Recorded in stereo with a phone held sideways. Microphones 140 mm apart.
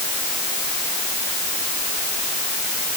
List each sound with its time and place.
Only background noise.